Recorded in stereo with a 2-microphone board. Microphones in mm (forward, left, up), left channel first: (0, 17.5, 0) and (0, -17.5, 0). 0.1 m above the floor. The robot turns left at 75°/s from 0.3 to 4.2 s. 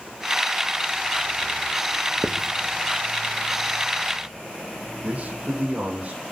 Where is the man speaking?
40° right (ahead or behind), 4.5 m.